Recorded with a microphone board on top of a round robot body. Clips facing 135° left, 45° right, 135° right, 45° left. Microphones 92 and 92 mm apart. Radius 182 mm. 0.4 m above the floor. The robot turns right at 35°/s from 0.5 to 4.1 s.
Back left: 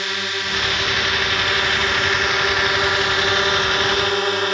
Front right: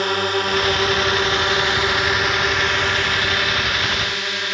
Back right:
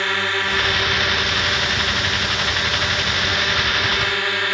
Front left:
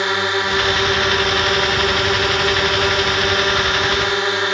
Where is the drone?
20° right; by 4.6 s 105° left.